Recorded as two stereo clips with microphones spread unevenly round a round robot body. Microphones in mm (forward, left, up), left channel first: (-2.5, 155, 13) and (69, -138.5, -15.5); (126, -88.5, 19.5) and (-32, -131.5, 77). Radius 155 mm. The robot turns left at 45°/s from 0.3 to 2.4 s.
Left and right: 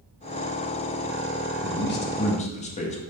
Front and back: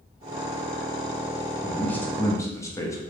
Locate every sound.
1.6 s a man speaking: 75° left, 0.7 m; by 3.0 s 40° left, 0.7 m